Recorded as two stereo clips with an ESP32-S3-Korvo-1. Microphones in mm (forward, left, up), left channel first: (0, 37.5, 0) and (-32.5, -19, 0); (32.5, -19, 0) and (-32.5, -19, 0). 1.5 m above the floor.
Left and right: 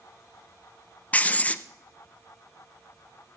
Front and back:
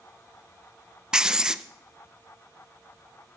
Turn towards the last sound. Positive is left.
turn(degrees=110)